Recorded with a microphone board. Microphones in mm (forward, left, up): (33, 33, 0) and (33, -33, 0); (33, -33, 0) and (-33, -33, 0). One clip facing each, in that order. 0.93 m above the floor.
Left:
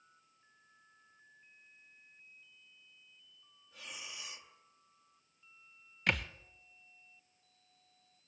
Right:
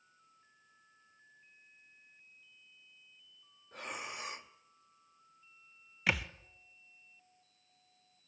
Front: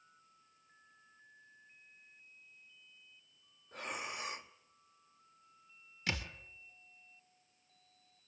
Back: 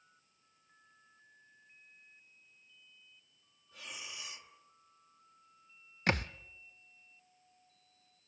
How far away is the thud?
About 0.7 m.